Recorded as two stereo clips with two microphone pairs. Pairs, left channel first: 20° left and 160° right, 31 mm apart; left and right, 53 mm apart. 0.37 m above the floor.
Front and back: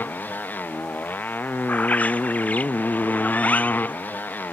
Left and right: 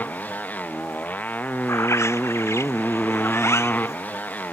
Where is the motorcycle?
30° left.